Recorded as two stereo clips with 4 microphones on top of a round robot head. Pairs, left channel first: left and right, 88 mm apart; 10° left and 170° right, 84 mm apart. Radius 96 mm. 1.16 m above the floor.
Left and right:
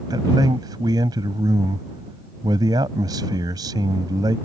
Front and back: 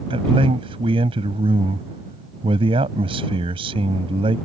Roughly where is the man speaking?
Behind right.